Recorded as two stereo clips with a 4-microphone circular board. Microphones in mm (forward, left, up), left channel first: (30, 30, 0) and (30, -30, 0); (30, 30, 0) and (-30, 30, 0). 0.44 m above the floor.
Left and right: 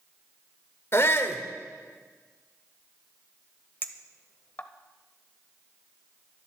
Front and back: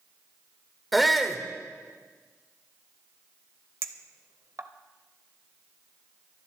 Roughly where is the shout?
Left.